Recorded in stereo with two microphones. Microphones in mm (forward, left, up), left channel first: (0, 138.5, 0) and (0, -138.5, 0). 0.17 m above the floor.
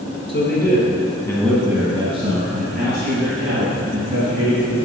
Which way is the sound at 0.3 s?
40° left (ahead or behind).